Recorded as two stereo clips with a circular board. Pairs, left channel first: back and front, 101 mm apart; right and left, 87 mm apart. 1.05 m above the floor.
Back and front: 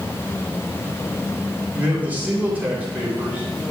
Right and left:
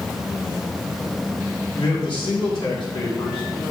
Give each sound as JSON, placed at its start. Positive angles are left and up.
{"t": 1.7, "sound": "a man speaking", "azimuth_deg": -70, "distance_m": 2.5}